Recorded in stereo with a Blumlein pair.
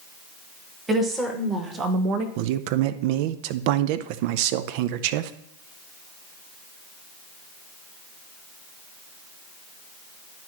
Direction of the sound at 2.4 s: 45° right.